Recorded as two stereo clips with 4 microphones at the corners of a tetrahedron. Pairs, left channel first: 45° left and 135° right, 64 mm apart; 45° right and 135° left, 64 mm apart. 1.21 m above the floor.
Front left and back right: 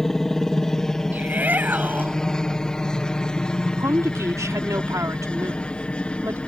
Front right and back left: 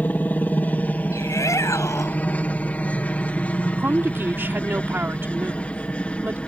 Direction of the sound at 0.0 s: 30° right.